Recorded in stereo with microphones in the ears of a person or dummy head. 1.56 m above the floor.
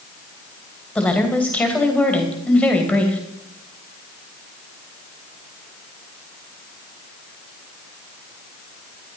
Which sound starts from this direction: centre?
A woman speaking, at 0.9 s.